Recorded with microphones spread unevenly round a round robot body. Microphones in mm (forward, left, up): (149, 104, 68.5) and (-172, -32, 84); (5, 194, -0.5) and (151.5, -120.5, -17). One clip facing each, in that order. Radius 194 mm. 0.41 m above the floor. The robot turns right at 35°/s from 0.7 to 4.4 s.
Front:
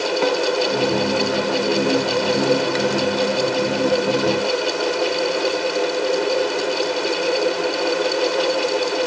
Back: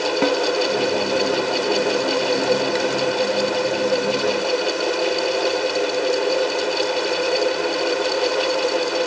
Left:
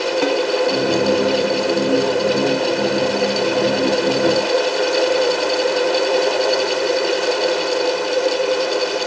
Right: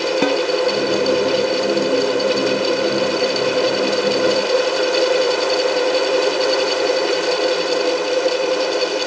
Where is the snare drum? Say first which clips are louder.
Back 1 dB, right 1 dB; 105° right, 0.5 m.